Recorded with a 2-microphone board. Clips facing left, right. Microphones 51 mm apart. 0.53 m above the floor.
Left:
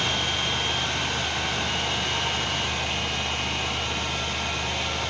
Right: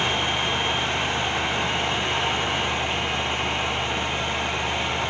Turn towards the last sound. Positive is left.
No sound to turn to.